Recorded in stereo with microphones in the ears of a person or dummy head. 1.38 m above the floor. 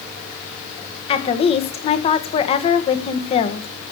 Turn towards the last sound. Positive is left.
turn(degrees=30)  # may be behind; listen again after turning